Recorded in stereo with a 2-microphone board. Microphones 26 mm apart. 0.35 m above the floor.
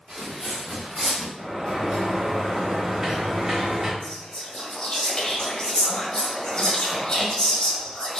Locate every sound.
0.1 s footsteps: 35° right (ahead or behind), 1.9 m; by 1.3 s 10° right (ahead or behind), 2.0 m
1.4 s a sliding door: 25° right (ahead or behind), 0.9 m
4.0 s whispering: 35° left (ahead or behind), 1.2 m